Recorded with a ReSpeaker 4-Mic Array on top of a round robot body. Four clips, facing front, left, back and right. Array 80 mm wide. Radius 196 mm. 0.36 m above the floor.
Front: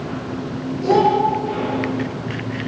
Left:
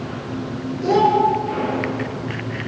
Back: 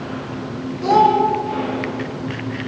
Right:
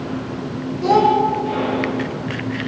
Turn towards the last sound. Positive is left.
turn(degrees=-140)